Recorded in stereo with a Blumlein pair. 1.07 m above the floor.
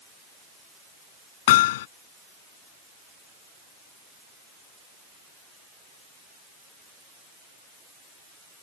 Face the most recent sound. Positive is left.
turn(degrees=55)